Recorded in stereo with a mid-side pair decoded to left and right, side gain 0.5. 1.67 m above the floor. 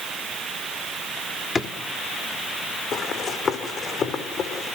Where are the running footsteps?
55° left, 6.5 m.